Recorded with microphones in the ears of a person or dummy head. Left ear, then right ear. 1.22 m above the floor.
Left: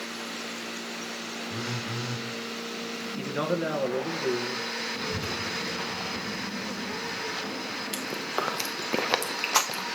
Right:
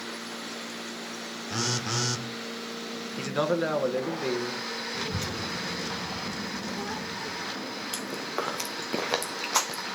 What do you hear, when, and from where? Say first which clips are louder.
1.5 s a phone buzzing: right 7 dB; 65° right (ahead or behind), 0.8 m
3.2 s a man speaking: right 3 dB; 25° right (ahead or behind), 1.1 m
4.9 s a child speaking: left 1 dB; 45° right (ahead or behind), 0.8 m
7.9 s chewing: left 2 dB; 10° left (ahead or behind), 0.7 m